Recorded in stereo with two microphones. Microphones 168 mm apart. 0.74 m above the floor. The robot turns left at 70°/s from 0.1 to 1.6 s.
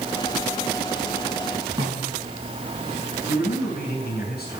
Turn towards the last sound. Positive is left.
turn(degrees=60)  # may be behind; listen again after turning